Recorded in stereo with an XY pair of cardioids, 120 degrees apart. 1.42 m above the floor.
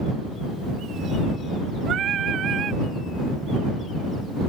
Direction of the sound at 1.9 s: 55° right.